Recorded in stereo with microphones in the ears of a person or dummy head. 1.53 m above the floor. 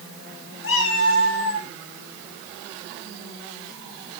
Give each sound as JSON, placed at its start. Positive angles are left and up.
{"t": 0.6, "sound": "a cat meowing", "side_deg": 65, "distance_m": 2.5}